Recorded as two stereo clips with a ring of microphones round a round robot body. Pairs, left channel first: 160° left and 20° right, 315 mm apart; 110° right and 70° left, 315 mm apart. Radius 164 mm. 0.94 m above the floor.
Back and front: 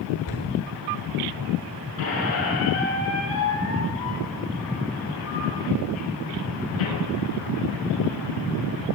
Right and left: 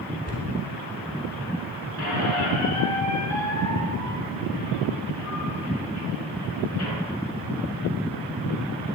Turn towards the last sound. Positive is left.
turn(degrees=-155)